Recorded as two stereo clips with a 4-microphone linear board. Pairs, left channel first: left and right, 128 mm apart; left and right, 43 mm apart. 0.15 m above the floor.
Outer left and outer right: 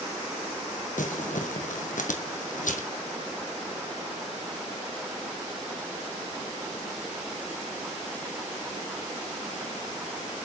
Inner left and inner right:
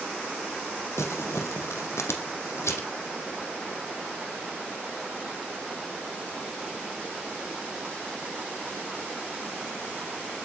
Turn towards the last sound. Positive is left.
turn(degrees=80)